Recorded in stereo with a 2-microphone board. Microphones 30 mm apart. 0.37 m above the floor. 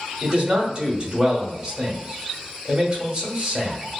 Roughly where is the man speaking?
Right.